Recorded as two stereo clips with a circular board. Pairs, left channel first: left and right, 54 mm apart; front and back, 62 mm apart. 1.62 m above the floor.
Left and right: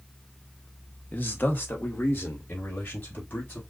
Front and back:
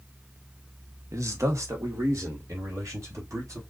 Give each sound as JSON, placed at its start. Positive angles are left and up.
{"t": 1.1, "sound": "a man speaking", "azimuth_deg": 145, "distance_m": 1.3}